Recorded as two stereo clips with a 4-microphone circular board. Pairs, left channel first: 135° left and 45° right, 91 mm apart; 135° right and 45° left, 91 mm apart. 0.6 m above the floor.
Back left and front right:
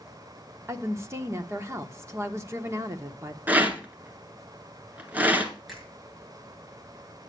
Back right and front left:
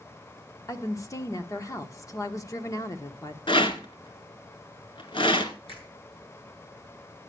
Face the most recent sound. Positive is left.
turn(degrees=-135)